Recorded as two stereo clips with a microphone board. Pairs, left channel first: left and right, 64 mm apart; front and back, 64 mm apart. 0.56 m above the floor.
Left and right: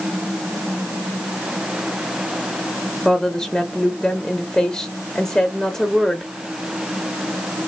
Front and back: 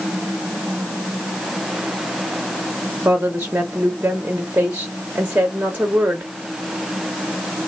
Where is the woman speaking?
155° left, 0.9 m.